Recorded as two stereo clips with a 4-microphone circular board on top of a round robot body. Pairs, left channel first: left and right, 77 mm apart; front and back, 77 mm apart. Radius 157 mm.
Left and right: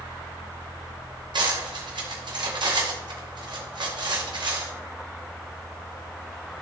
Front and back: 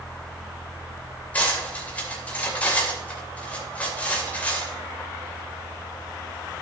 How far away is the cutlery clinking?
About 2.5 m.